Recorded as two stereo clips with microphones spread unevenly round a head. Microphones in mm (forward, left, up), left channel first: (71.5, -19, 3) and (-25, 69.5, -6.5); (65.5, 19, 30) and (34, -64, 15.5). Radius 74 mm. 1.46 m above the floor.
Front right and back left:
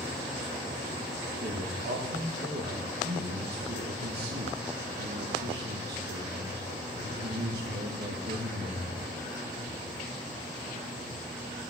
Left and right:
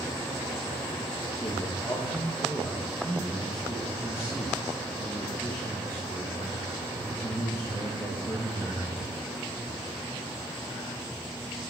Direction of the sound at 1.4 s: 140° left.